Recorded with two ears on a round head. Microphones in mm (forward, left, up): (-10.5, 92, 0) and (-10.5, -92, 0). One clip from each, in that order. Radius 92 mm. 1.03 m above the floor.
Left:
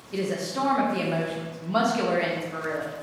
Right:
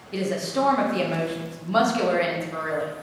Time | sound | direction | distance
0.1 | a woman speaking | 10° right (ahead or behind) | 0.5 m